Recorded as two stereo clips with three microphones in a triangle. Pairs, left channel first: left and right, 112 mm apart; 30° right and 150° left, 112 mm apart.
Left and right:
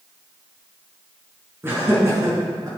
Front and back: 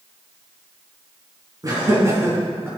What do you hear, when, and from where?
1.6 s laughter: 155° right, 4 m; by 2.7 s 140° right, 5 m